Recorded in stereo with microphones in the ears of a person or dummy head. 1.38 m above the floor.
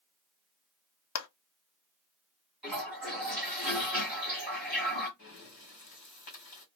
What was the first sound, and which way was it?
A clap, 80° left.